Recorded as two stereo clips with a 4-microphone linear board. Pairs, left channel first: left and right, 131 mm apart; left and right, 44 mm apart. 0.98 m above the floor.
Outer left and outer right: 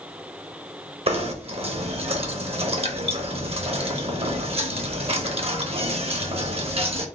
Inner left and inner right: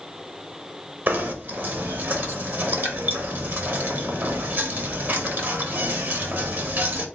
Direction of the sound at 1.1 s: 50° right (ahead or behind).